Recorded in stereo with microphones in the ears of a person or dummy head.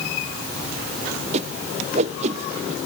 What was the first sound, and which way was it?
A whoosh, 40° right (ahead or behind).